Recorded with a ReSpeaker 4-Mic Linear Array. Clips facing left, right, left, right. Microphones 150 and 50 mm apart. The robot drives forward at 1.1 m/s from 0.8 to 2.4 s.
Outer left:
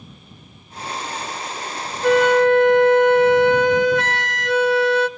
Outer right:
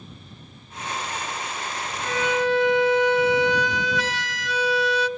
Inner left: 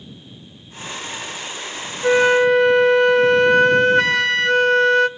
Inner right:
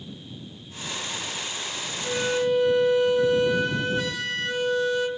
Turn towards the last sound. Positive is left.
turn(degrees=60)  # may be behind; listen again after turning